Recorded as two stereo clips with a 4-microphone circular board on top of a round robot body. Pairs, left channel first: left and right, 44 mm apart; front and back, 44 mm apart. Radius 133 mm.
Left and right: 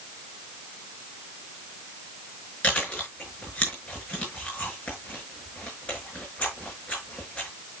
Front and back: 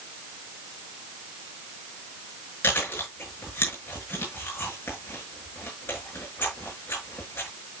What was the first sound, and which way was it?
Chewing, 30° left.